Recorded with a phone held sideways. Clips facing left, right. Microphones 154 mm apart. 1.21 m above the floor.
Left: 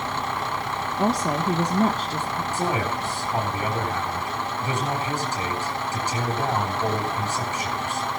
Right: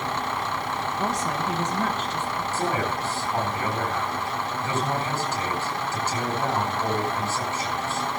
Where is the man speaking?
15° left (ahead or behind), 9 m.